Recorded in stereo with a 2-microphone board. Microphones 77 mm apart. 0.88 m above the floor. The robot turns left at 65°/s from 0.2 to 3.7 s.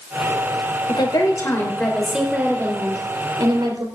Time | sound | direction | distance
0.9 | a woman speaking | 75° left | 3.5 m